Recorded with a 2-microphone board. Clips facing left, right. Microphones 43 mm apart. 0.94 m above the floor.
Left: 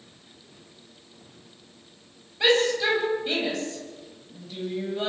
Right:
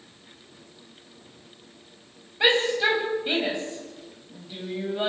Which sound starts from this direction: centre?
A shout, at 2.4 s.